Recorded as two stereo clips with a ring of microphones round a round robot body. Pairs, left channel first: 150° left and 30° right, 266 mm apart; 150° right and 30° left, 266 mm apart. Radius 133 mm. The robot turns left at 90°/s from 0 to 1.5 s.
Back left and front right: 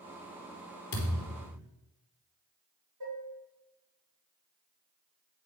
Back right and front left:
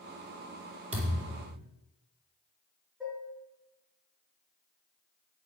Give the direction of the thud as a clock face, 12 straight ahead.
9 o'clock.